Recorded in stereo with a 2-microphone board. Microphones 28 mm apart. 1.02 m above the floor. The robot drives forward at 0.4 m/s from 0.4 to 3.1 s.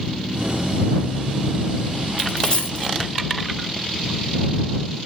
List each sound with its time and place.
2.2 s a dropped coin: 35° left (ahead or behind), 1.7 m; by 2.9 s 30° left (ahead or behind), 2.0 m